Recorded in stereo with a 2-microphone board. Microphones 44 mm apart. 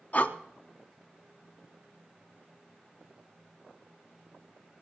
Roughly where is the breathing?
Left.